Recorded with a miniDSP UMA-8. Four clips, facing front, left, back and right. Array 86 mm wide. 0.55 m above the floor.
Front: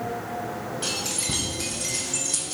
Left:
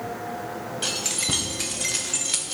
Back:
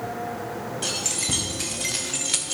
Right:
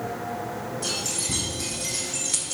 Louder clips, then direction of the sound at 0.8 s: Left 1 dB, even; 100° left.